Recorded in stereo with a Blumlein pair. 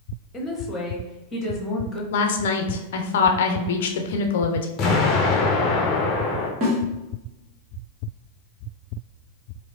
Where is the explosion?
30° left, 0.9 m.